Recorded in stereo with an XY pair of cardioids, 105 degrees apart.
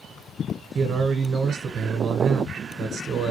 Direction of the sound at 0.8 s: 60° right.